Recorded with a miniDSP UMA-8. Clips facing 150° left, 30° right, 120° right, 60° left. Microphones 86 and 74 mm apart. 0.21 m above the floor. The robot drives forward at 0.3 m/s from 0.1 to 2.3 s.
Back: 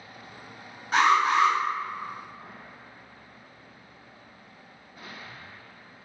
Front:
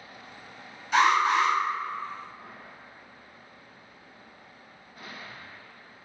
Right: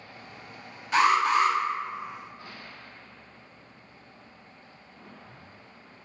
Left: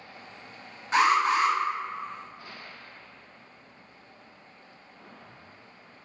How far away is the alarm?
About 1.5 m.